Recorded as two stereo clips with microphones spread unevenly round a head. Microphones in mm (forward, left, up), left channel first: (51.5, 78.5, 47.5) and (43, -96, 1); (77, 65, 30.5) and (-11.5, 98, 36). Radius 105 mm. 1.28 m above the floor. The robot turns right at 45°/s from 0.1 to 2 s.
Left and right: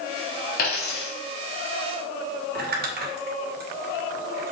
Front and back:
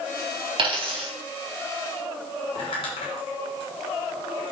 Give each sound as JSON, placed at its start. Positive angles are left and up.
{"t": 0.6, "sound": "a dropped coin", "azimuth_deg": 130, "distance_m": 3.5}
{"t": 2.5, "sound": "crumpling", "azimuth_deg": -65, "distance_m": 2.5}